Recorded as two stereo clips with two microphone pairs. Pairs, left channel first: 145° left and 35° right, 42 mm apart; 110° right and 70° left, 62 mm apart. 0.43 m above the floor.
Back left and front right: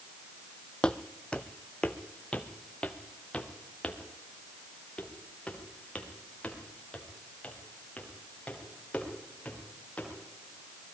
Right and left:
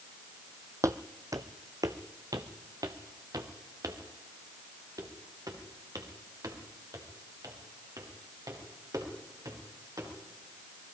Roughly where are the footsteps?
Left.